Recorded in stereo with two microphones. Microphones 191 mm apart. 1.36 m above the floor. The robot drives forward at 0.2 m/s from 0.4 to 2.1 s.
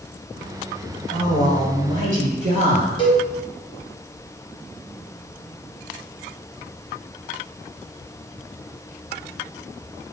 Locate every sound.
1.1 s a man speaking: 45° right (ahead or behind), 1.7 m; by 2.9 s 40° right (ahead or behind), 1.8 m
3.0 s a cowbell: 25° left (ahead or behind), 1.0 m